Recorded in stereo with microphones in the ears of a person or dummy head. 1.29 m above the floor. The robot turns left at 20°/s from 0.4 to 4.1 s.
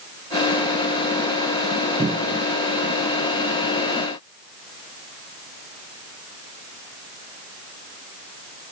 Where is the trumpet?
I don't hear a trumpet.